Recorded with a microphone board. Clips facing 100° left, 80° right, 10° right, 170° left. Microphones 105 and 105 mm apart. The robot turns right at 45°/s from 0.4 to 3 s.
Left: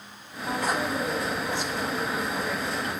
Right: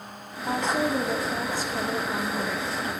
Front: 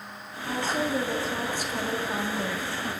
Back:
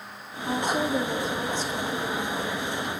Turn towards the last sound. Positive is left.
turn(degrees=-20)